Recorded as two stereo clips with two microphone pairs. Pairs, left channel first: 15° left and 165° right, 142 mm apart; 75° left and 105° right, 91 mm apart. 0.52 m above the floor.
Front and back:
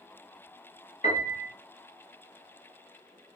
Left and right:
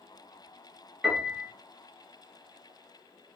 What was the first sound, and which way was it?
A piano, 15° right.